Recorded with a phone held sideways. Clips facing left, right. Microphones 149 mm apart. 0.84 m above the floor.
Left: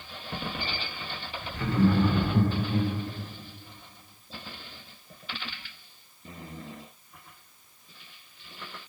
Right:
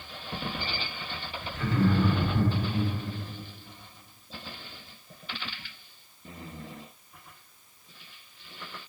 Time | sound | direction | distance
1.5 | laughter | 15° left (ahead or behind) | 1.2 m